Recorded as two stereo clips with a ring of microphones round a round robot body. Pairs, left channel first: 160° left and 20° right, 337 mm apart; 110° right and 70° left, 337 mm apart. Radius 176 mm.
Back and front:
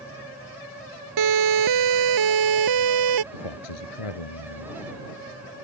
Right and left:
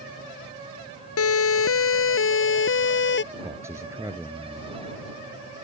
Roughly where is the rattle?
I don't hear a rattle.